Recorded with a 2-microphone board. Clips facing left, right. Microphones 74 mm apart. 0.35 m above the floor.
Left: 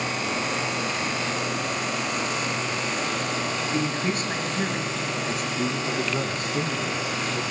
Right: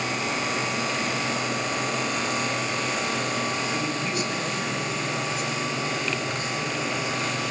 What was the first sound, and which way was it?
A man speaking, 35° left (ahead or behind).